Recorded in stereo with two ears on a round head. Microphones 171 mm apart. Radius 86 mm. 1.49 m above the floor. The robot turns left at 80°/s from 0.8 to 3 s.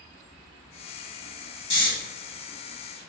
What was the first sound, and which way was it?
Snoring, 30° left (ahead or behind).